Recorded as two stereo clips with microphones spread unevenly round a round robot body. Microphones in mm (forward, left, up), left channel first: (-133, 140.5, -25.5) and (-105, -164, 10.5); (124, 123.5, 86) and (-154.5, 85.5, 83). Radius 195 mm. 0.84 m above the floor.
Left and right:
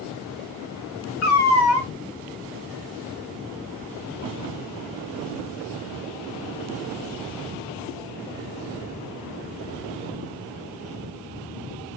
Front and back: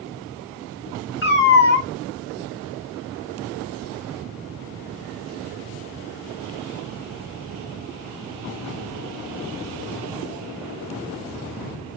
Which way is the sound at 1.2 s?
50° left.